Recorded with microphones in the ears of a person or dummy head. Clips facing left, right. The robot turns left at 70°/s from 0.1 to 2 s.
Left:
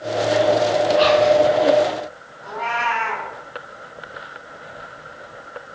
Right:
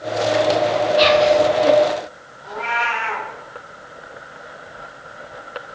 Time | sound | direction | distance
1.0 | whispering | 20° right (ahead or behind) | 0.5 m
2.4 | a cat meowing | 45° left (ahead or behind) | 1.2 m